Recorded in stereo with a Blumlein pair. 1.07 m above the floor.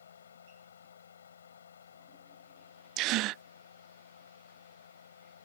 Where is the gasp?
40° right.